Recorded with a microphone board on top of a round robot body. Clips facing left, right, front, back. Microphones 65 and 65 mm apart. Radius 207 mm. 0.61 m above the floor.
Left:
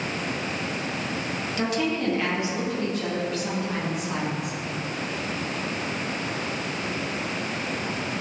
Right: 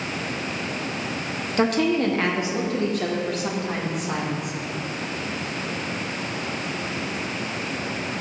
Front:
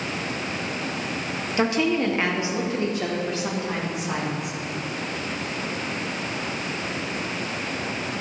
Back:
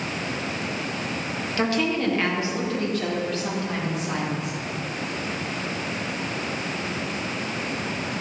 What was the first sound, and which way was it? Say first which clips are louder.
A woman speaking: right 6 dB, front 2 dB; 65° right.